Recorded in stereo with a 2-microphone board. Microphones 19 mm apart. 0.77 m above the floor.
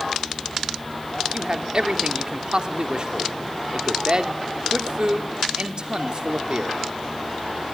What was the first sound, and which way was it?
A man speaking, 45° right (ahead or behind).